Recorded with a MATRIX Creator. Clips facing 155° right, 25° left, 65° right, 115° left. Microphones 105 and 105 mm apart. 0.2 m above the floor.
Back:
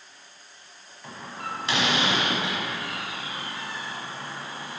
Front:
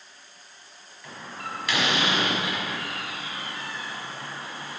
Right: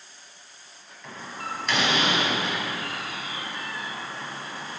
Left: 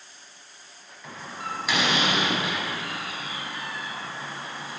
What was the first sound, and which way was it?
A door slam, 165° right.